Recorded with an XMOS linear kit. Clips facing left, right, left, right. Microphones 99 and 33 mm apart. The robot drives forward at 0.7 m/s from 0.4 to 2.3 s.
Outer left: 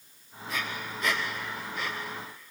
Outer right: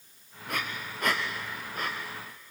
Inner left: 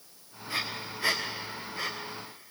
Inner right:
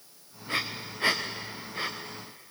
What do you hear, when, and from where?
0.5 s breathing: 60° right (ahead or behind), 3 m; by 1.9 s 45° right (ahead or behind), 3.5 m